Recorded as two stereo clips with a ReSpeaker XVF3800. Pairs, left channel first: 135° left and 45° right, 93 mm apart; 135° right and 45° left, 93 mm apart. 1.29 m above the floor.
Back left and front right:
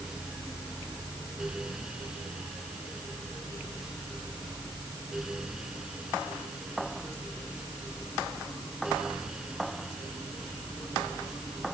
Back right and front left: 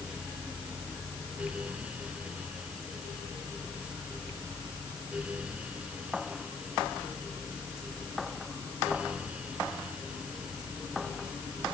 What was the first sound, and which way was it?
Only background noise.